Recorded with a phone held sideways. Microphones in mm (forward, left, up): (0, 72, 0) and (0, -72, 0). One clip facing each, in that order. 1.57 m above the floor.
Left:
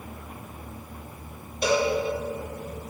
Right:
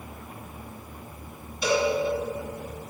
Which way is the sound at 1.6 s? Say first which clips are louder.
Left 1 dB; 55° left (ahead or behind).